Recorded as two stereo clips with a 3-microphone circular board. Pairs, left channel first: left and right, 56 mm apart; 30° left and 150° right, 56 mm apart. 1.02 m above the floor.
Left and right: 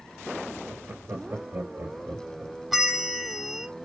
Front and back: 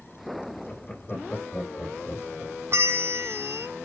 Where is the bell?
175° right, 1.2 m.